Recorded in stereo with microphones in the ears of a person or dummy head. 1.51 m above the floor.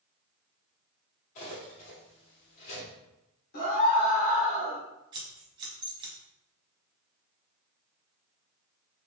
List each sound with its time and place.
1.4 s cutlery clinking: 45° left (ahead or behind), 2 m
3.5 s a scream: 55° left (ahead or behind), 1.8 m
5.1 s scissors: 25° right (ahead or behind), 1.6 m